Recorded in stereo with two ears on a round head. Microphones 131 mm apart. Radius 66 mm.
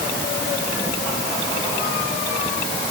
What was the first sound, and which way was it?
Only background noise.